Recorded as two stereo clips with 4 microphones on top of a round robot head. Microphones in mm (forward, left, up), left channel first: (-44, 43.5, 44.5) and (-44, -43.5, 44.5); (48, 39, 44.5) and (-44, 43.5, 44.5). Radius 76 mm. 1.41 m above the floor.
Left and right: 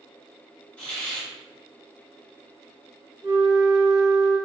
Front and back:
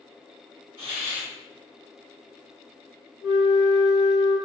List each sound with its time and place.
0.8 s a hiss: 160° left, 1.9 m
3.2 s a flute: 110° right, 0.9 m